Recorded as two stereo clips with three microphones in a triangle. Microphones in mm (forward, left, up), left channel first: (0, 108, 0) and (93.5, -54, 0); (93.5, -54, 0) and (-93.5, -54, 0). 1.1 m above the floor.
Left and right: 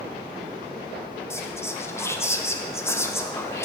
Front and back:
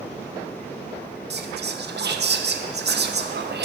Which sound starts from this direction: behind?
Whispering, at 1.3 s.